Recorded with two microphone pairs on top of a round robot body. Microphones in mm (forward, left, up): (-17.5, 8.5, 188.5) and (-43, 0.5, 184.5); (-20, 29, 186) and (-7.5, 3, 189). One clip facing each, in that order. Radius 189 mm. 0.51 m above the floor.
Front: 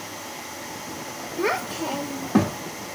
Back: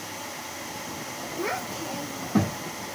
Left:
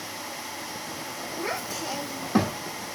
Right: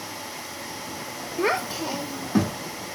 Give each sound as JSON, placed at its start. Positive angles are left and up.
{"t": 1.4, "sound": "a child speaking", "azimuth_deg": -40, "distance_m": 1.1}